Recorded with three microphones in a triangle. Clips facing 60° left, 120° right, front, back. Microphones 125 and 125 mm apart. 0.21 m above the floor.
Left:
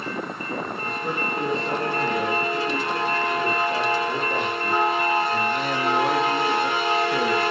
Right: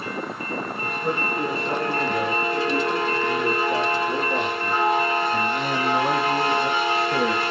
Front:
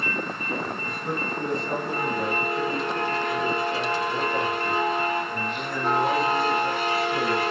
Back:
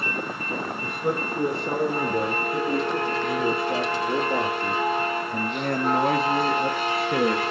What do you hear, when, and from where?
0.8 s a man speaking: 160° left, 8.5 m